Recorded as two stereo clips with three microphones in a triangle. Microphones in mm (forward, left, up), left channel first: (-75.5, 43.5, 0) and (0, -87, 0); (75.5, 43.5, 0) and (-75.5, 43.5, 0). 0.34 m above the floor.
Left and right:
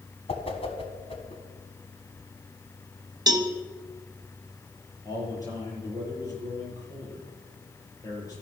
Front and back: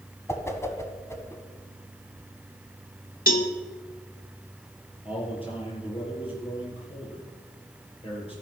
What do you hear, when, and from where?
0.3 s a whoosh: 70° left, 1.6 m
3.3 s a cowbell: straight ahead, 1.2 m
5.0 s a man speaking: 55° left, 6.5 m